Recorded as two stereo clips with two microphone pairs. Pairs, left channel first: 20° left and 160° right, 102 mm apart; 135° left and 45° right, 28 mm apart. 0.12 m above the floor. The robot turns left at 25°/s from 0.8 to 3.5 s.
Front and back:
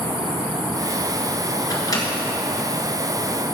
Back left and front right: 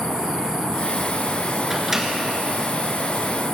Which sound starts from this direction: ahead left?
A microwave, at 1.7 s.